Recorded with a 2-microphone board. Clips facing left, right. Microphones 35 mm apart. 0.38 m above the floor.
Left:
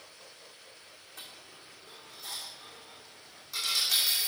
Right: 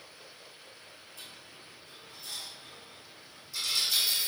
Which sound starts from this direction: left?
A dropped coin, at 1.2 s.